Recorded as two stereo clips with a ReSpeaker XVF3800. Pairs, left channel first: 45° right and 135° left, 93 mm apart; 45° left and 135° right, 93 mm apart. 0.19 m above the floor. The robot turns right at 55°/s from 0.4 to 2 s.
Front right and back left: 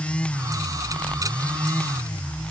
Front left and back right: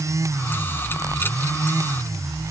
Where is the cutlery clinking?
No cutlery clinking in this recording.